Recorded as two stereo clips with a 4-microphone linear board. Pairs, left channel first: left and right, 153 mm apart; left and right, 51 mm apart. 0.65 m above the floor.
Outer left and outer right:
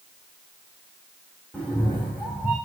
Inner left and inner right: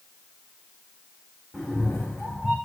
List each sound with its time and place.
1.5 s a cat meowing: 10° left (ahead or behind), 5 m